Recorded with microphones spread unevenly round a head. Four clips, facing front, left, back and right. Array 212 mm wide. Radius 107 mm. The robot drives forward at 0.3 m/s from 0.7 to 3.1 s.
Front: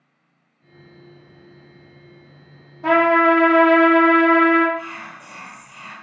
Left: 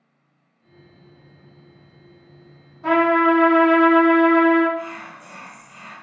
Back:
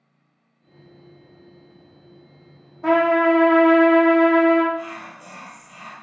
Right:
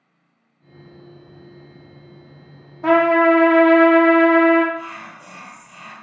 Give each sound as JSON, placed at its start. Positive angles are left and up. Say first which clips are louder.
{"t": 2.8, "sound": "a trumpet", "louder": "right 3 dB, front 2 dB", "azimuth_deg": -115, "distance_m": 0.7}
{"t": 4.7, "sound": "whispering", "louder": "left 2 dB, even", "azimuth_deg": -155, "distance_m": 1.7}